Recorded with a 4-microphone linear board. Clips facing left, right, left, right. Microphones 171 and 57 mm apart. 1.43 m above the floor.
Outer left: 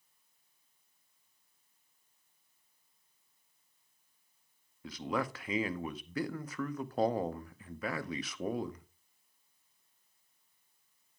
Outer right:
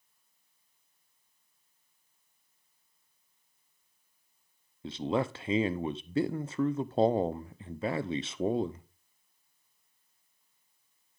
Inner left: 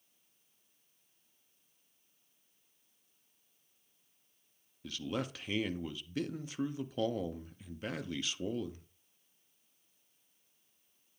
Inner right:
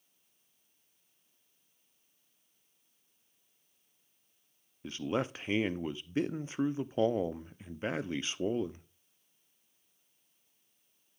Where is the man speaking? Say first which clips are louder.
Outer right 5 dB, inner right 5 dB; 25° right (ahead or behind), 0.5 m.